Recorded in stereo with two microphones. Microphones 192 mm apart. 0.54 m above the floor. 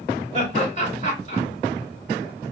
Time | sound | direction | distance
0.3 | laughter | 40° left (ahead or behind) | 2.5 m